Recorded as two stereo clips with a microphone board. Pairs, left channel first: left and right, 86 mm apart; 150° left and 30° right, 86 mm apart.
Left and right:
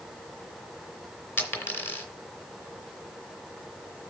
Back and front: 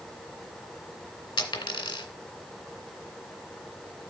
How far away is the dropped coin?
About 2 m.